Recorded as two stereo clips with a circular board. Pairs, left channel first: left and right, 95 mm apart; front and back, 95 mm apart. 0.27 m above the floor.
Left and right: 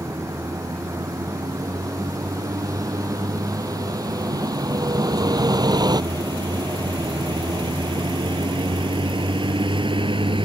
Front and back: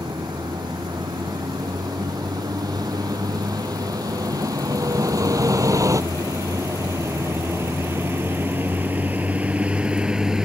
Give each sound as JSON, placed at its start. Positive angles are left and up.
{"t": 0.0, "sound": "a vehicle", "azimuth_deg": -145}